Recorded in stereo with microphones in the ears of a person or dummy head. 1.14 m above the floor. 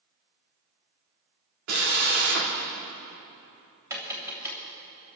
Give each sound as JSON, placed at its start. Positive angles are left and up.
{"t": 1.7, "sound": "a drill", "side_deg": -75, "distance_m": 2.5}
{"t": 3.9, "sound": "tapping", "side_deg": -15, "distance_m": 3.5}